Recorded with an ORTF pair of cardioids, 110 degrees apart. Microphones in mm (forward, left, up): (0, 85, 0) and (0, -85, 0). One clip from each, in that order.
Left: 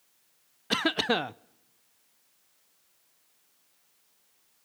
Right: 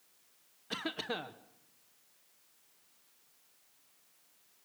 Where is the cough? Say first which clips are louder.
Left 12 dB; 55° left, 0.7 m.